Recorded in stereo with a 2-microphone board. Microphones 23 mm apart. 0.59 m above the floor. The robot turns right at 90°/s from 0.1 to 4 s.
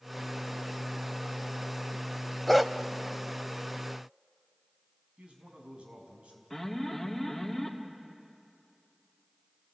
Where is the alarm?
10° left (ahead or behind), 2 m.